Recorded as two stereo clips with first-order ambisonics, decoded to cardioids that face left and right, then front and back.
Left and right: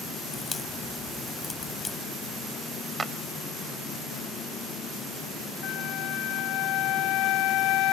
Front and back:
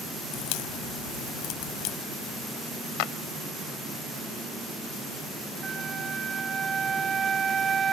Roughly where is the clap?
Ahead.